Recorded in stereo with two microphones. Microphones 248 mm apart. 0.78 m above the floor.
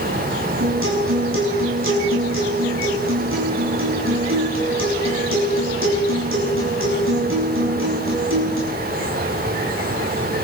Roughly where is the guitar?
Right.